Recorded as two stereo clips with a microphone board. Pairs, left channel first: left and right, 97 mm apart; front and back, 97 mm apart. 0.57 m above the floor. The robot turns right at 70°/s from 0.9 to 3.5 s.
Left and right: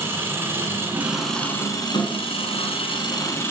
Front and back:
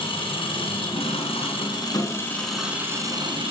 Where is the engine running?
25° right, 4.5 m; by 3.5 s 155° left, 4.5 m.